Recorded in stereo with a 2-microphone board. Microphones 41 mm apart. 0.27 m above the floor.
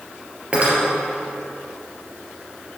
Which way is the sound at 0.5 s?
30° right (ahead or behind).